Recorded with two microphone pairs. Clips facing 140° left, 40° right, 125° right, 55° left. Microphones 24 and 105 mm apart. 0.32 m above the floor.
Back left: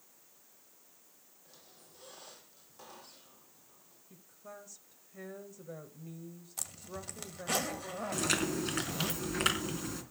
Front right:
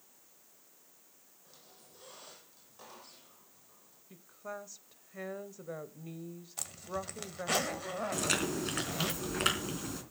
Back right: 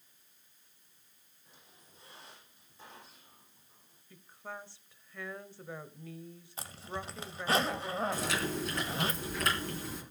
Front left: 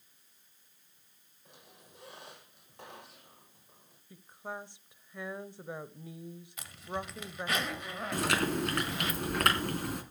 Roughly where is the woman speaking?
Ahead.